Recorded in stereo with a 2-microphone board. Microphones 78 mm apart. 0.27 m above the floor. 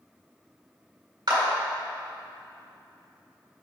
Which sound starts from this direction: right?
A clap, at 1.3 s.